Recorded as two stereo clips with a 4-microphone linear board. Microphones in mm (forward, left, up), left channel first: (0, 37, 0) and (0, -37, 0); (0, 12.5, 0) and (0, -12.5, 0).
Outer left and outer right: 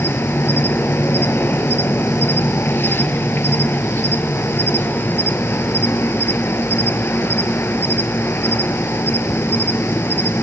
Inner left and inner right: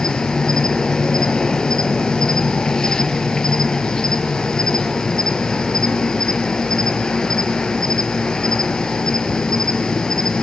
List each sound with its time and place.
0.0 s an insect: 30° left (ahead or behind), 0.7 m